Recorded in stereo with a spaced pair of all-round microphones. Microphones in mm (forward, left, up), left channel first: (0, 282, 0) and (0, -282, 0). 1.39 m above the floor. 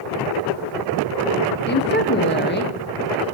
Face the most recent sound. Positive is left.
turn(degrees=20)  # may be behind; listen again after turning